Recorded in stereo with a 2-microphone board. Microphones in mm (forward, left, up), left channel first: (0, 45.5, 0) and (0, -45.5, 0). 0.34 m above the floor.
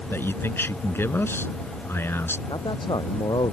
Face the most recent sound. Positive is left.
turn(degrees=60)  # may be behind; listen again after turning